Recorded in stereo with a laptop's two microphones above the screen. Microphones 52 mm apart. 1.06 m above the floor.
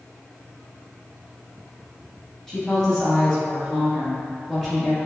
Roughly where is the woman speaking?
Centre.